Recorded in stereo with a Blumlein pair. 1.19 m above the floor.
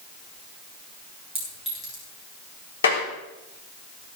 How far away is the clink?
About 8.5 m.